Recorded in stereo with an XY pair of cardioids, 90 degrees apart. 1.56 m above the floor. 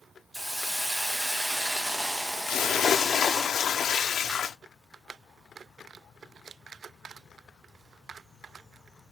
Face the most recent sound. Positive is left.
turn(degrees=65)